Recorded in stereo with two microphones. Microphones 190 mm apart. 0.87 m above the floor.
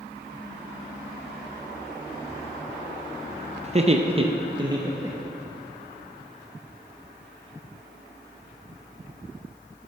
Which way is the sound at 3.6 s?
35° right (ahead or behind).